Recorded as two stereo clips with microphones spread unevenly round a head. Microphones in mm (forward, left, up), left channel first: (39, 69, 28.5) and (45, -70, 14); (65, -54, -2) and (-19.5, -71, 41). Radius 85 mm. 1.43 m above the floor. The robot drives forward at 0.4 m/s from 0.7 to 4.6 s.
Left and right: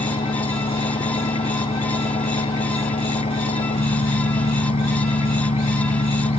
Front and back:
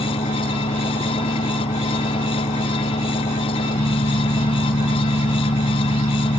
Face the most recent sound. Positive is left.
turn(degrees=45)